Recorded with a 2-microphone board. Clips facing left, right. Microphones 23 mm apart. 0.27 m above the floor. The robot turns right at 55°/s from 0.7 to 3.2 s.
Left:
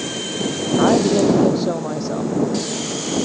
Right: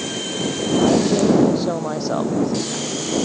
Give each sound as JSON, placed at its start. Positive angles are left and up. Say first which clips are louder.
{"t": 0.8, "sound": "a woman speaking", "louder": "left 2 dB", "azimuth_deg": 135}